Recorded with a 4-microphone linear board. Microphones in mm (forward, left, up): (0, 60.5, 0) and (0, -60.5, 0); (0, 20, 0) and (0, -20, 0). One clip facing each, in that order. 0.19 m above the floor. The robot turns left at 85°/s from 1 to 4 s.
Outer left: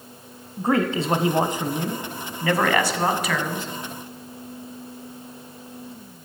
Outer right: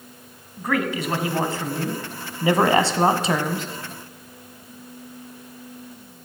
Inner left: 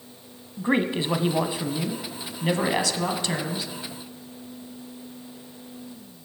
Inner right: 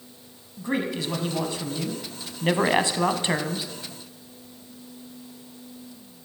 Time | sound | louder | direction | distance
0.6 | a man speaking | outer left 3 dB, inner left 4 dB | 25° left (ahead or behind) | 1.1 m